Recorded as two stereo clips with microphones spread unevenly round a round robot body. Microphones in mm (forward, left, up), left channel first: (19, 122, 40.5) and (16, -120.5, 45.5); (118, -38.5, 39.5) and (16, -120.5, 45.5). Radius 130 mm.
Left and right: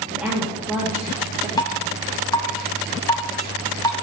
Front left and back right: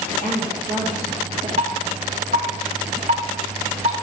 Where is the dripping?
165° left, 0.8 m.